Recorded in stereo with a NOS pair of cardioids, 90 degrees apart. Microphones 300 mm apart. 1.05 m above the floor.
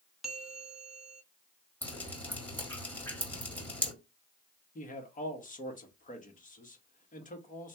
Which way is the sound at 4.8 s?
25° left.